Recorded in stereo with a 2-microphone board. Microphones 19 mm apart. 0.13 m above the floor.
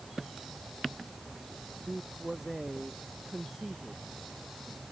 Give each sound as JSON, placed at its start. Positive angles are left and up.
{"t": 1.9, "sound": "a man speaking", "side_deg": -20}